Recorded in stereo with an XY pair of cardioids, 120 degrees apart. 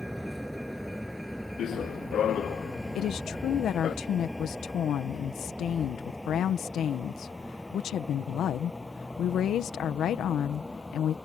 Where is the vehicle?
Straight ahead; by 11.2 s 10° left.